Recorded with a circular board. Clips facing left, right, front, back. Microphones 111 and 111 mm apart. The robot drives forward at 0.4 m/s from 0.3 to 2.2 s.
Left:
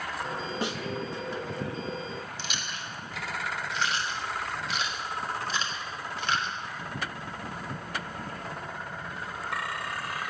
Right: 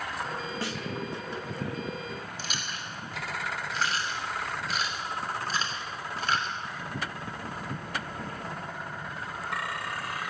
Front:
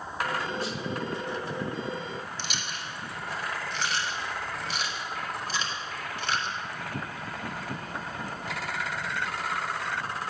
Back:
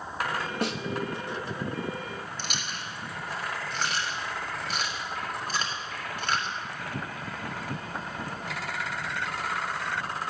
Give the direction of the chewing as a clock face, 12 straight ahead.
5 o'clock.